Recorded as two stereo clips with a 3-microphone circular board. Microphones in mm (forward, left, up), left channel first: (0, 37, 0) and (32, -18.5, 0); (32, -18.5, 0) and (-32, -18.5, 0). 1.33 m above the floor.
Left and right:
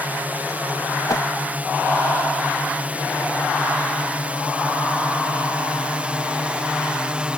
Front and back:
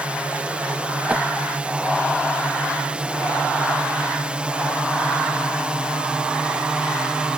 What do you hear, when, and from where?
0.0 s a drone: 110° right; by 7.4 s 115° right
1.1 s a whoosh: 115° left